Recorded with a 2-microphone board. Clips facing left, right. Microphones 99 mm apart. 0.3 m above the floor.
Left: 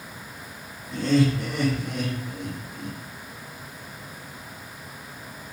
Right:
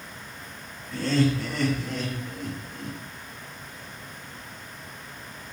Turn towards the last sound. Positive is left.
turn(degrees=10)  # may be behind; listen again after turning